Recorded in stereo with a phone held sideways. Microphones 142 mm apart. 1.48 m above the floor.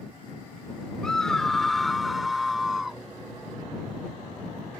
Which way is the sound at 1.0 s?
5° left (ahead or behind).